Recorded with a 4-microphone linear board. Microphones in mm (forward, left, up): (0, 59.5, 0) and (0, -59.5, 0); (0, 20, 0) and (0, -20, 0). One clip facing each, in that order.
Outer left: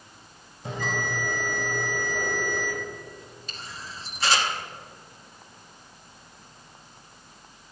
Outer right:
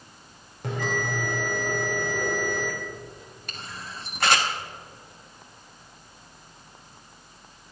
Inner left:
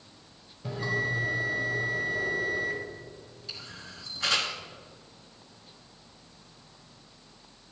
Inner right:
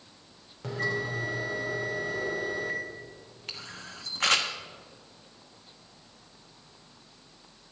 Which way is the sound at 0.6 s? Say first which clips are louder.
Outer right 2 dB, inner left 1 dB; 75° right (ahead or behind).